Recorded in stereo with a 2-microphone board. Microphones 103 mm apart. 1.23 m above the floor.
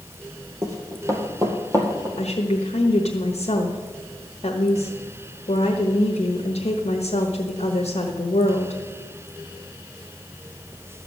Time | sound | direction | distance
0.6 | running footsteps | 30° right (ahead or behind) | 1.9 m
2.2 | a woman speaking | 90° left | 1.2 m